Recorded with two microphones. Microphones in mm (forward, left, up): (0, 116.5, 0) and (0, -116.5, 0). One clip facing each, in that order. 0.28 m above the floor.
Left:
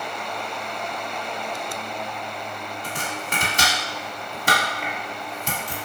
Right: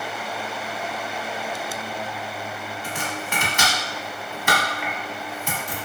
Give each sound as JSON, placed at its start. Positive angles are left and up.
{"t": 2.8, "sound": "chopping", "side_deg": 40, "distance_m": 0.8}